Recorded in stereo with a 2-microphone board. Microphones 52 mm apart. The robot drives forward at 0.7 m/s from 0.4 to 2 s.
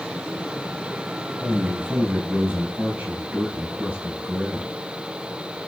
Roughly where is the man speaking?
Right.